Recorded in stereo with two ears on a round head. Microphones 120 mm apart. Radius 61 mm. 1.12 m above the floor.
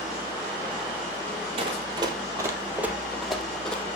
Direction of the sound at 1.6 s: 45° right (ahead or behind).